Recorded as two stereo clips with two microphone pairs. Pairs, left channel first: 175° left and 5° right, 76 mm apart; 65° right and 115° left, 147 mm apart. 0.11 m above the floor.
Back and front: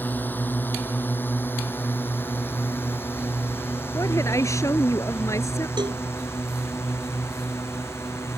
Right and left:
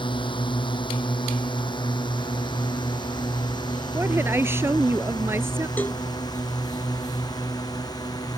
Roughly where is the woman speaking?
Behind.